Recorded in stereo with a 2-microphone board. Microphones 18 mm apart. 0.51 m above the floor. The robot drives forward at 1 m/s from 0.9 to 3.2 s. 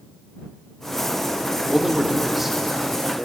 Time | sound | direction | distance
1.7 | a man speaking | 10° right (ahead or behind) | 1.3 m